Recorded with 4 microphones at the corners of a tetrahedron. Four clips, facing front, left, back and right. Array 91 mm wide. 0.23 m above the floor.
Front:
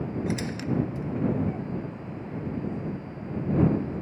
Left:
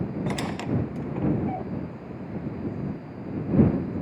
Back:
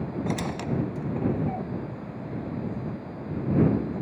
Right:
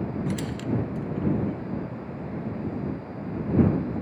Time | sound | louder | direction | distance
0.3 | a squeak | left 2 dB, back 1 dB | 120° left | ?